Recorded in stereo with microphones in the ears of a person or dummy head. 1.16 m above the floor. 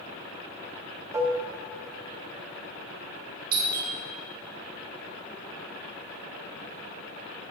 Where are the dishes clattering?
15° right (ahead or behind), 1.0 m.